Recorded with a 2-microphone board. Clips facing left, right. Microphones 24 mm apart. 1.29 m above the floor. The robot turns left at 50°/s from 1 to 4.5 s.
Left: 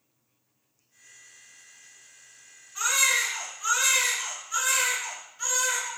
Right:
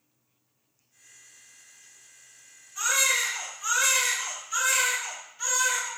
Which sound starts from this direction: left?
A baby crying, at 2.8 s.